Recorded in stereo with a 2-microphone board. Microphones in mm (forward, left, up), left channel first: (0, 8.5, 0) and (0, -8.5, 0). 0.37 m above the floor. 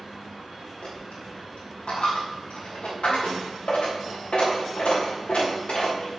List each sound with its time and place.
0.8 s a dropped coin: 75° left (ahead or behind), 4 m